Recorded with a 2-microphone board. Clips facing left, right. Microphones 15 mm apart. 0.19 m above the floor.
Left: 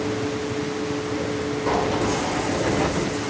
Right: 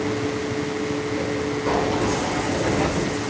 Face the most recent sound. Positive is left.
turn(degrees=0)  # may be behind; listen again after turning